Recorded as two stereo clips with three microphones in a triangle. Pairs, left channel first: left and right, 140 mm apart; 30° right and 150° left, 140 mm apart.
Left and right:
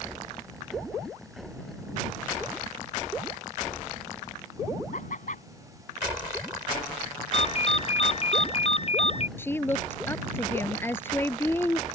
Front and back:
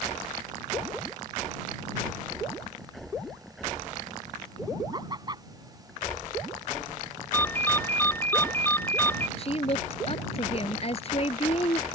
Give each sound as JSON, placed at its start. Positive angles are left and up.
{"t": 4.9, "sound": "laughter", "azimuth_deg": 95}
{"t": 7.3, "sound": "a ringtone", "azimuth_deg": 45}
{"t": 9.4, "sound": "a woman speaking", "azimuth_deg": 15}